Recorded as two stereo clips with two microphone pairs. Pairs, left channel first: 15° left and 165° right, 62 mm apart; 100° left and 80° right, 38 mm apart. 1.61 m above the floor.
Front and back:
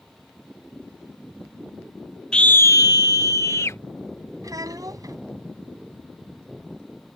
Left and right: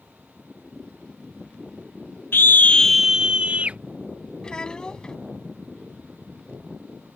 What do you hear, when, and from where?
2.3 s a scream: 90° left; by 3.8 s 30° right
4.4 s a child speaking: 170° left